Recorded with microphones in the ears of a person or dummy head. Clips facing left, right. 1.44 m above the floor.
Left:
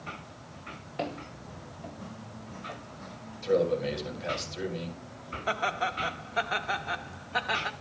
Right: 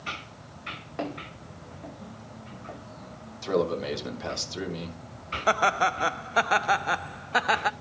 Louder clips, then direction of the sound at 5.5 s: Right 6 dB; 65° right (ahead or behind).